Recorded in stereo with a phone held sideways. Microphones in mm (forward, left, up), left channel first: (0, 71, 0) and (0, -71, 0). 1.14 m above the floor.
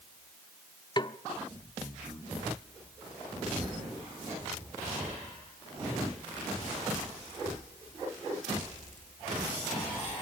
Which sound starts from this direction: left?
A snare drum, at 1.0 s.